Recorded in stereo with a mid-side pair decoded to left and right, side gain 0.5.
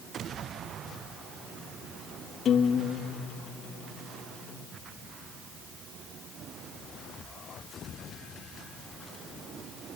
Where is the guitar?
55° left, 3 m.